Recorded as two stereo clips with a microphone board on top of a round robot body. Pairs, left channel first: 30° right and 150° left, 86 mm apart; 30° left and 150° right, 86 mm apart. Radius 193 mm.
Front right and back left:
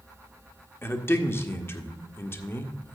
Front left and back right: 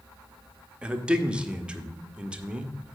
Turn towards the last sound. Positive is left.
turn(degrees=-75)